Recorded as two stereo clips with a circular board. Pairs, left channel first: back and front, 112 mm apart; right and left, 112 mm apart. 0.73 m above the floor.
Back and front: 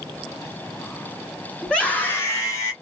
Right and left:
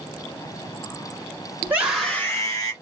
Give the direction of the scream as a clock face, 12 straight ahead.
9 o'clock.